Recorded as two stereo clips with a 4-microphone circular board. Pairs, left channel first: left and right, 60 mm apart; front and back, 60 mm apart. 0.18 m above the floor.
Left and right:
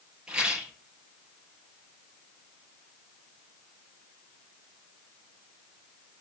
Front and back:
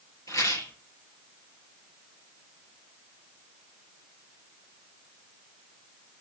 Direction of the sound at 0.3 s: 15° right.